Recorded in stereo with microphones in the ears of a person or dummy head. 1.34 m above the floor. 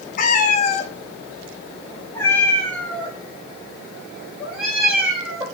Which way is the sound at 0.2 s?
50° left (ahead or behind).